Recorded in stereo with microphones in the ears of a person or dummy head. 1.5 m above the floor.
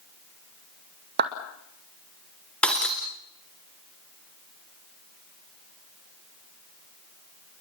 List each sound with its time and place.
1.2 s a clap: 55° right (ahead or behind), 2 m
2.6 s breaking glass: 5° left (ahead or behind), 2.0 m